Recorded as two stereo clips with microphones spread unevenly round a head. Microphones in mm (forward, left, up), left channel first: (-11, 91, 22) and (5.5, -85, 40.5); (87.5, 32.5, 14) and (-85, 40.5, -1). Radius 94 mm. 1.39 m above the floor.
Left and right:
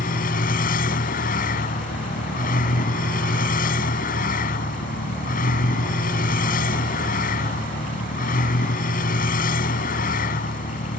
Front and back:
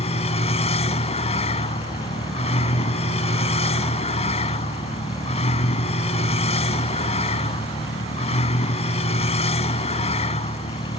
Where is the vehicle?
50° left.